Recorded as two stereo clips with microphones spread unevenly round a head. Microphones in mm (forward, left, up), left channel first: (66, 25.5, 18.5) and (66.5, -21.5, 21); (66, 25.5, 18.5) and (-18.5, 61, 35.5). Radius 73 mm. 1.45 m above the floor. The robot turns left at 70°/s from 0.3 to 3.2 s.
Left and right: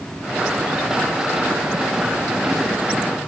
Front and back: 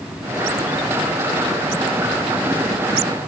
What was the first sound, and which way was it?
Only background noise.